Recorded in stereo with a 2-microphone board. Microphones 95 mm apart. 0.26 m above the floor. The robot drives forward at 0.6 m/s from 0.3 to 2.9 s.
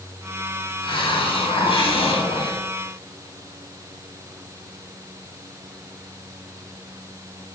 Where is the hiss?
55° left (ahead or behind), 1.9 m.